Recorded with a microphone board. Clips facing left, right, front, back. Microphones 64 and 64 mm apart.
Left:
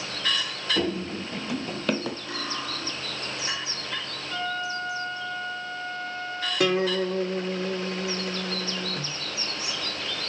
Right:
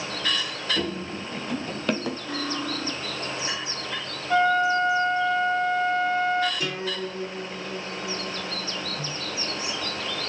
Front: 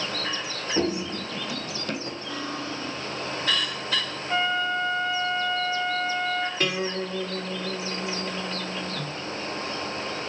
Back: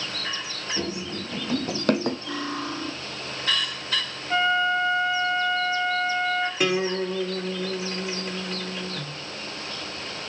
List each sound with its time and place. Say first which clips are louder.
0.8 s running footsteps: left 2 dB, front 6 dB; 25° left, 0.9 m; by 2.2 s straight behind, 1.5 m
2.3 s cutlery clinking: right 3 dB, back 2 dB; 170° left, 3 m
4.3 s a flute: right 11 dB, back 4 dB; 100° right, 1.5 m
6.6 s a guitar: left 7 dB, back 3 dB; 100° left, 1.5 m